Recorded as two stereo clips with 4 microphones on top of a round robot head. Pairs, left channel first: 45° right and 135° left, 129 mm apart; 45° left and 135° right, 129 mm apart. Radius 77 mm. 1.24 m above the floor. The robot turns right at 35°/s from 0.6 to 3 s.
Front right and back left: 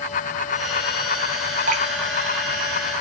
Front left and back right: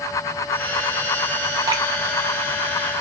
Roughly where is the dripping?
Behind.